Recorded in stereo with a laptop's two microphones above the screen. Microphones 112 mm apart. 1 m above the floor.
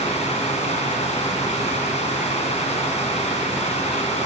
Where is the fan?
70° left (ahead or behind), 2.5 m.